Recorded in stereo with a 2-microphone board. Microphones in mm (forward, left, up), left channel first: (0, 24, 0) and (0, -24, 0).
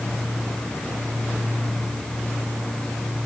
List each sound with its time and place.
Only background noise.